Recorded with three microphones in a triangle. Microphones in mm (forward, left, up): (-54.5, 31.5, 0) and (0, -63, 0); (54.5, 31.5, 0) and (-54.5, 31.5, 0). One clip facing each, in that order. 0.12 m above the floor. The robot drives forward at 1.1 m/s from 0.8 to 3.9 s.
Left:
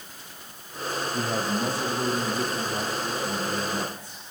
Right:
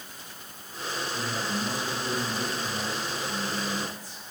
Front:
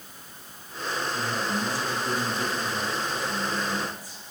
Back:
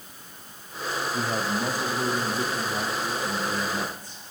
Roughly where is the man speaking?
Behind left.